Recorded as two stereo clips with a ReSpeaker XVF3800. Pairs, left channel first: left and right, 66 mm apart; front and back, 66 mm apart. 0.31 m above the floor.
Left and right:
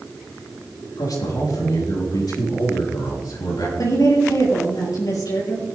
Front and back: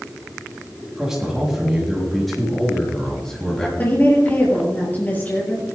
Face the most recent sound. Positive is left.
turn(degrees=60)